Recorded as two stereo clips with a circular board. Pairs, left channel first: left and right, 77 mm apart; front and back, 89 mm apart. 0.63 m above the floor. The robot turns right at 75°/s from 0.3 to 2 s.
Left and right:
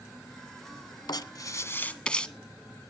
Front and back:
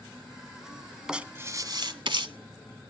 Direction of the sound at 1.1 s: 100° left.